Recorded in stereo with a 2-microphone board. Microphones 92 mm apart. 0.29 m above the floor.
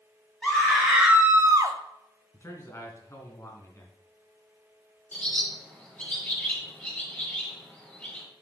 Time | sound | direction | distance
0.4 | a scream | 10° left (ahead or behind) | 1.8 m
2.3 | a man speaking | 30° left (ahead or behind) | 2.5 m
5.1 | a bird | 20° left (ahead or behind) | 5 m